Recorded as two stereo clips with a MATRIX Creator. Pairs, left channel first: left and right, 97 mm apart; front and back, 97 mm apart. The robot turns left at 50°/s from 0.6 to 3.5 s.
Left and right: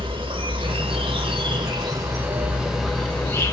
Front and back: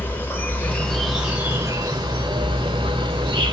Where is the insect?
70° right, 0.9 m; by 3.5 s 145° left, 0.9 m.